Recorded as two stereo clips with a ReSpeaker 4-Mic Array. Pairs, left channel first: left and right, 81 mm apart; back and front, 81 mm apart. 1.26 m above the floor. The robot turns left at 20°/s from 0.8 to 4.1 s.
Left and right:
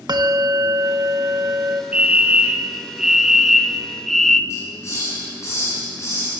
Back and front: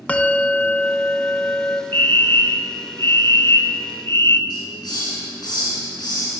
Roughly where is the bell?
Right.